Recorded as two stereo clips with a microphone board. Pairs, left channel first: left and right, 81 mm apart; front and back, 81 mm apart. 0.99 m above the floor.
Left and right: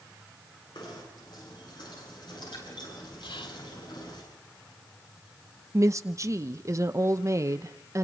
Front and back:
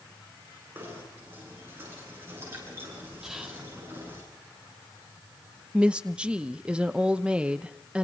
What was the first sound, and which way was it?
Knocking, 115° left.